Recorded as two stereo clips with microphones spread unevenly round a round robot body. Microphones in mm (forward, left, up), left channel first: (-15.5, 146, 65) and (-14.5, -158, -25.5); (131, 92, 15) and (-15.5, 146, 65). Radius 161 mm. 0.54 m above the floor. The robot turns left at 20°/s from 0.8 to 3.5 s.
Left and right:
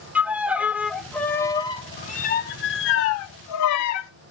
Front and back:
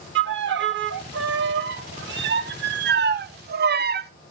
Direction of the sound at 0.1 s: 175° right.